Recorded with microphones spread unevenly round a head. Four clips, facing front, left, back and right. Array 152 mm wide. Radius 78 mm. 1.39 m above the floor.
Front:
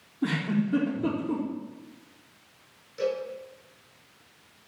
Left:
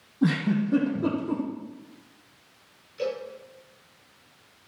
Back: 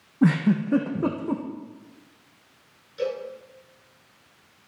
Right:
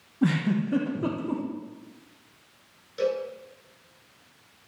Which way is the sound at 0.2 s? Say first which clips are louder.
Left 1 dB, back 6 dB; 175° right.